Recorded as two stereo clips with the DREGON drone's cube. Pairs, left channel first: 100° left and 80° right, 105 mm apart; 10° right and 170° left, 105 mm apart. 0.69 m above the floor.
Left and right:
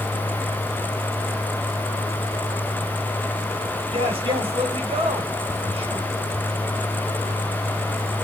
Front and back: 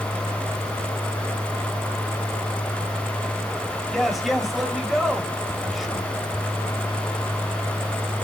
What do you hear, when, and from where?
3.9 s a man speaking: 100° right, 1.4 m